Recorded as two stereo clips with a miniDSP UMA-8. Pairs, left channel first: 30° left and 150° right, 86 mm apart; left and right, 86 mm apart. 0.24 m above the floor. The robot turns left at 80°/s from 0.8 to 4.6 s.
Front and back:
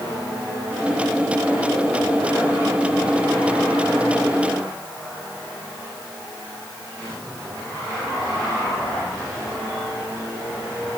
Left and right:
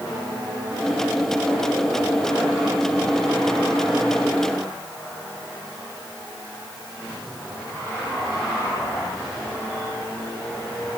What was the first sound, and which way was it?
Only background noise.